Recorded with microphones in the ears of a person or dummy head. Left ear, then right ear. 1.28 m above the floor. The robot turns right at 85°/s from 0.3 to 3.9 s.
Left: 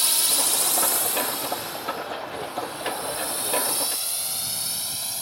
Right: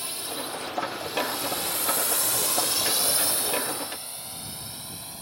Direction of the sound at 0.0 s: 50° left (ahead or behind).